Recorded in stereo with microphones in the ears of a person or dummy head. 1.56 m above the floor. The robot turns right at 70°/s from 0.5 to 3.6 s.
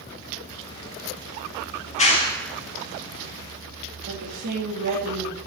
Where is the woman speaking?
45° right (ahead or behind), 3 m.